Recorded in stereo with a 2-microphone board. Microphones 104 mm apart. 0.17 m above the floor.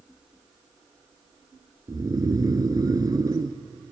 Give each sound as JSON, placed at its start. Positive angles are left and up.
{"t": 1.9, "sound": "snoring", "side_deg": -40, "distance_m": 0.8}